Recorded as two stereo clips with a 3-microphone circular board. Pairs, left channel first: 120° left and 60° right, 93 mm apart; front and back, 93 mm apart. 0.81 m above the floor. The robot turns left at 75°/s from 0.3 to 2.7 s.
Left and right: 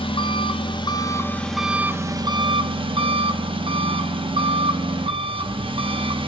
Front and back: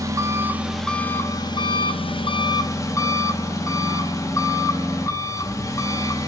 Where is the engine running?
125° left, 0.8 m; by 6.3 s 55° right, 0.8 m.